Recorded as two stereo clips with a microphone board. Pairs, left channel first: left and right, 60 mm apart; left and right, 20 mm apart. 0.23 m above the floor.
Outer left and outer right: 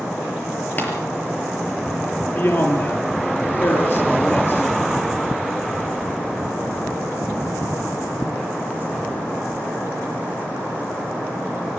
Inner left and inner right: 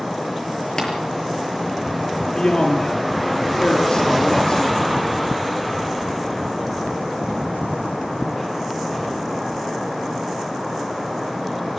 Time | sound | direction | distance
0.8 | tapping | 30° left (ahead or behind) | 6 m
2.3 | a man speaking | 40° left (ahead or behind) | 6.5 m